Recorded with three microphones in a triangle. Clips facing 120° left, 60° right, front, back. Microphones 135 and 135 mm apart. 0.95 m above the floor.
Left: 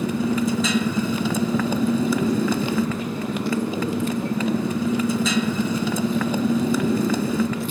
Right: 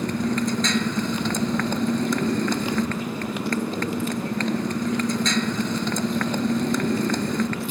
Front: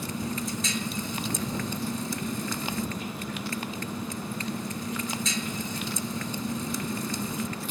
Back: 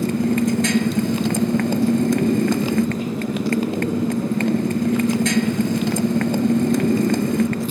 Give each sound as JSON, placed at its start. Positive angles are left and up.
{"t": 0.0, "sound": "a motorcycle", "azimuth_deg": -155}